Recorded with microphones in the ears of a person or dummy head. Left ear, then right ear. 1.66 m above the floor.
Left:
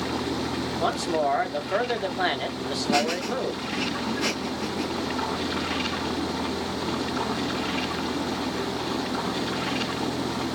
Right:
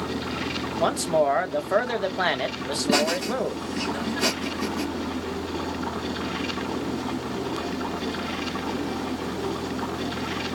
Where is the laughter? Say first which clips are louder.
Right 2 dB; 35° right (ahead or behind), 1.0 m.